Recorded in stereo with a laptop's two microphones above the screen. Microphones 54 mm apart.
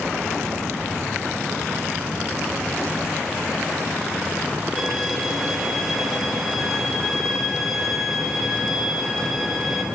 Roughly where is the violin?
Centre.